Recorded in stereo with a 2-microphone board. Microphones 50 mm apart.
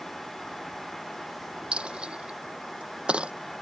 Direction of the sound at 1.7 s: 20° right (ahead or behind).